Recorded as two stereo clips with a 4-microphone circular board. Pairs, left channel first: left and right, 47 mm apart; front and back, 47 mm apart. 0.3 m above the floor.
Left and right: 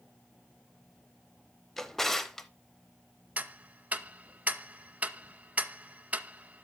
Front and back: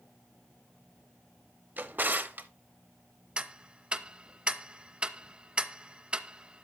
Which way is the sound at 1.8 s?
170° left.